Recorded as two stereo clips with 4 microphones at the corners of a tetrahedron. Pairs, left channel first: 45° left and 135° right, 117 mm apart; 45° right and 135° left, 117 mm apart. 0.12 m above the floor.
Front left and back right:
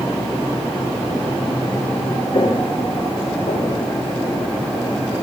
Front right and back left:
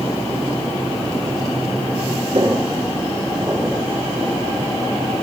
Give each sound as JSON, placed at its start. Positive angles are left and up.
{"t": 2.3, "sound": "footsteps", "azimuth_deg": 90, "distance_m": 1.6}